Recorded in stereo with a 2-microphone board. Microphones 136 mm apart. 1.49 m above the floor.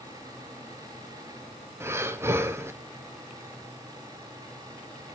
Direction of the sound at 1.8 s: 20° right (ahead or behind).